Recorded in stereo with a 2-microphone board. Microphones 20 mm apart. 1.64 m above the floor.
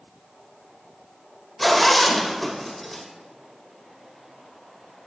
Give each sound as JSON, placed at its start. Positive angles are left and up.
{"t": 1.6, "sound": "a zipper", "side_deg": 0, "distance_m": 2.5}